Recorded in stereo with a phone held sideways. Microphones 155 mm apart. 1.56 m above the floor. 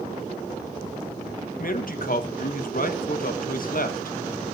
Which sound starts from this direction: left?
A man speaking, at 1.6 s.